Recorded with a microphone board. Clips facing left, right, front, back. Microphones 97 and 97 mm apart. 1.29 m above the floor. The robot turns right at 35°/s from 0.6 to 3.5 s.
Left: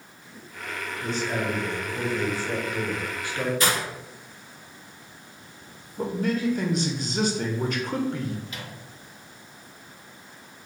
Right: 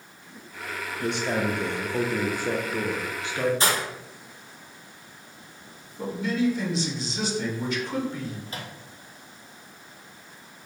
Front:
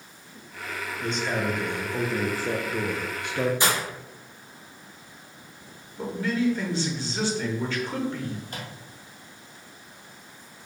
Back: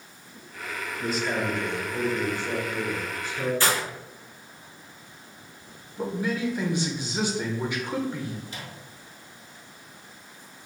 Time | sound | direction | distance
1.0 | a man speaking | 100° right | 0.6 m
3.6 | breaking glass | 60° right | 0.9 m
6.0 | a man speaking | 110° left | 0.8 m
8.5 | a microwave | 35° right | 0.6 m